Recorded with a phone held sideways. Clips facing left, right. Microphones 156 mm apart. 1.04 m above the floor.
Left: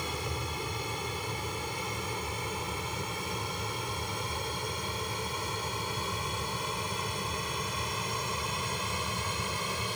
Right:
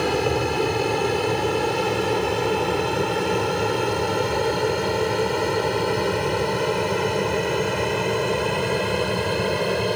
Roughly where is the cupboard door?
I don't hear a cupboard door.